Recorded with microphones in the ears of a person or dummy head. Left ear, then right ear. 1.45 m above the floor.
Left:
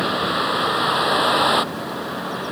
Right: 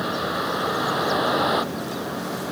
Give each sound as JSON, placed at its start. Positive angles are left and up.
{"t": 0.0, "sound": "a vehicle", "side_deg": 35}